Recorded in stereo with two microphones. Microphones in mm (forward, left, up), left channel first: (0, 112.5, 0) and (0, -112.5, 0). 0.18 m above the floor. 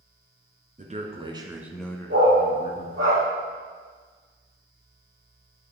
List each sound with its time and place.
0.8 s a man speaking: 35° right (ahead or behind), 1.9 m; by 3.1 s 60° left (ahead or behind), 1.7 m
2.1 s a dog barking: 65° right (ahead or behind), 3 m